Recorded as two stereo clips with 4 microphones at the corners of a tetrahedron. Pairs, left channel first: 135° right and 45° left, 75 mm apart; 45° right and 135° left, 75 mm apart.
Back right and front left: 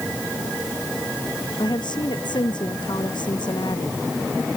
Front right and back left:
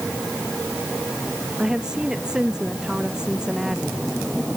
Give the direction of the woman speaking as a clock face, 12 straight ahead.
5 o'clock.